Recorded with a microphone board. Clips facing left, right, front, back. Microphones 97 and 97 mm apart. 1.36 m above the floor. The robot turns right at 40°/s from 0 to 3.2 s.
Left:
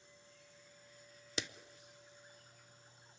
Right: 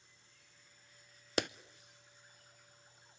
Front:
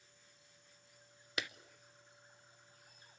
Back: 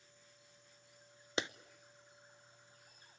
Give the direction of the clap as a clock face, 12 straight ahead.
4 o'clock.